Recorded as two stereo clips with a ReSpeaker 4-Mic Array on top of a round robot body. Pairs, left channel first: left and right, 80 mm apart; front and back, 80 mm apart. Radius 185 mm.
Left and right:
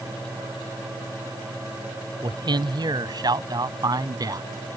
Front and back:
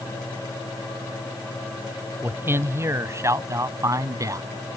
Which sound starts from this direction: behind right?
A man speaking, at 2.2 s.